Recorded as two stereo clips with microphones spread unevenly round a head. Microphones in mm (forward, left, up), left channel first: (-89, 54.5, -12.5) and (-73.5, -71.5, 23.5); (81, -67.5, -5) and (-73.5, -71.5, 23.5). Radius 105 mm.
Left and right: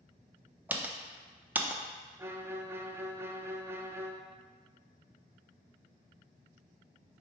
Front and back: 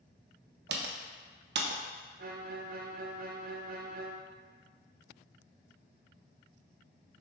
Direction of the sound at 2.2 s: 155° right.